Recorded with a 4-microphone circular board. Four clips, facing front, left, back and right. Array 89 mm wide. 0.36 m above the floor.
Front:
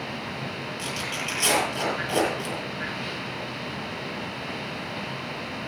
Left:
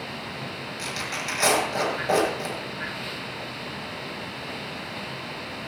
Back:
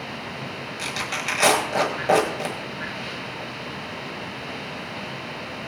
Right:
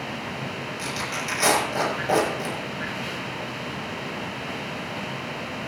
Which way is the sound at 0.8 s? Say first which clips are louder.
Right 1 dB, back 5 dB; 175° right.